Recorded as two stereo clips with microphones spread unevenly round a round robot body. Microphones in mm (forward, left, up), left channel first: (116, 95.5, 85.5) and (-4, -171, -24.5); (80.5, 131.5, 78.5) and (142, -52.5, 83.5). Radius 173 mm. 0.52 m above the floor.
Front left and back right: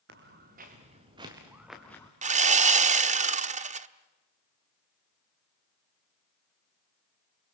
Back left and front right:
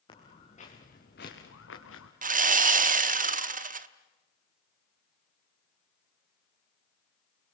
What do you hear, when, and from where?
0.1 s footsteps: 175° right, 3.5 m; by 2.1 s 140° left, 2.5 m
2.2 s sawing: 95° right, 0.8 m